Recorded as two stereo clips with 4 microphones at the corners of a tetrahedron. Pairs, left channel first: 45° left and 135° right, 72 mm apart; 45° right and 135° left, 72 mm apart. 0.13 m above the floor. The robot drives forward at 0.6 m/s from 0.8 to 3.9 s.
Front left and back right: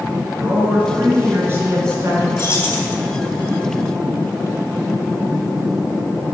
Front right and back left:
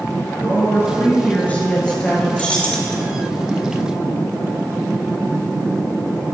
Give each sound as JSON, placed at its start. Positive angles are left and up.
{"t": 0.4, "sound": "a woman speaking", "azimuth_deg": -80, "distance_m": 1.9}
{"t": 2.4, "sound": "keys jangling", "azimuth_deg": 15, "distance_m": 1.2}